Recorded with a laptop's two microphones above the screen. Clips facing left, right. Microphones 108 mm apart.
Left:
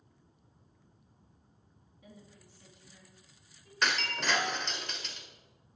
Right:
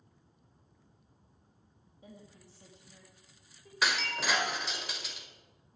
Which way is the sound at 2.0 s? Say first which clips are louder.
Right 2 dB; 30° right (ahead or behind).